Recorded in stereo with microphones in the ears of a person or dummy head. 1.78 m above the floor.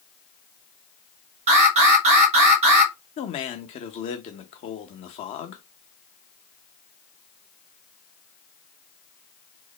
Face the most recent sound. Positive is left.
turn(degrees=30)  # may be behind; listen again after turning